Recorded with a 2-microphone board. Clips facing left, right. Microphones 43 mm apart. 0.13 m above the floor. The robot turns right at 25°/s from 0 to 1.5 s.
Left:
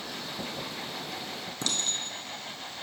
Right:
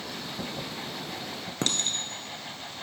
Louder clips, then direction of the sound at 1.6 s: Right 3 dB; 50° right (ahead or behind).